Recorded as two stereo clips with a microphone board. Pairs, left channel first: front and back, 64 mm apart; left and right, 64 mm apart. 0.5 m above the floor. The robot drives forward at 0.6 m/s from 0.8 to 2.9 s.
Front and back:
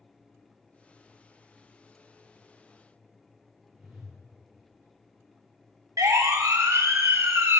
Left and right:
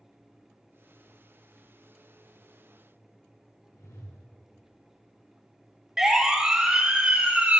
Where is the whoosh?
85° left, 6.5 m.